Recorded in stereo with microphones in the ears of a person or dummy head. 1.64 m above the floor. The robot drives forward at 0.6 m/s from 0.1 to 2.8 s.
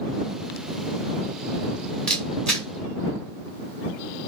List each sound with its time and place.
2.1 s a camera shutter: 10° left (ahead or behind), 2.5 m; by 2.7 s 5° left (ahead or behind), 2.5 m